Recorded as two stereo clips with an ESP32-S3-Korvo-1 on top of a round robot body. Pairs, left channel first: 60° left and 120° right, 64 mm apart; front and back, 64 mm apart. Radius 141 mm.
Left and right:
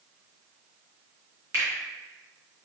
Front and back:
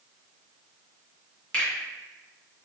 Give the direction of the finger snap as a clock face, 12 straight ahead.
2 o'clock.